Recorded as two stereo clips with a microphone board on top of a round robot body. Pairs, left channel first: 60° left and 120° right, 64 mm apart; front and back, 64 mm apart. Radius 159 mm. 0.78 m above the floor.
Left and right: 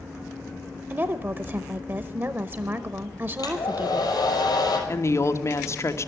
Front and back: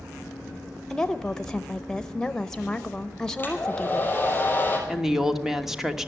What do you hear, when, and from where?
0.9 s a woman speaking: 75° right, 0.8 m
3.4 s a hair dryer: 65° left, 5 m
4.9 s a woman speaking: 100° left, 1.4 m